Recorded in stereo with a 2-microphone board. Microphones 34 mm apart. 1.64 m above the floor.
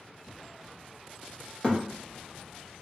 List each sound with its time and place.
1.6 s a thud: 25° left (ahead or behind), 1.1 m